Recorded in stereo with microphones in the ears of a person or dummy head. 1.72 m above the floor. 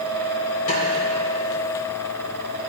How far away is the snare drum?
About 4 m.